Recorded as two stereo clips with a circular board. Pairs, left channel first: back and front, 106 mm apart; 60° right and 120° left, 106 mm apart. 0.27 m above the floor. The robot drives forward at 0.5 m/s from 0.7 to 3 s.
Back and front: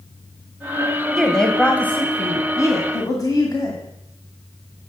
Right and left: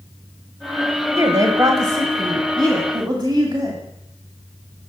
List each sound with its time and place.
1.2 s a woman speaking: 90° left, 1.3 m; by 3.8 s 140° left, 1.6 m